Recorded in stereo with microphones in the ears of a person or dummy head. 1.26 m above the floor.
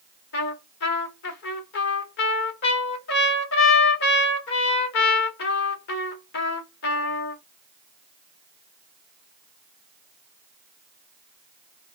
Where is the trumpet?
55° left (ahead or behind), 1.0 m.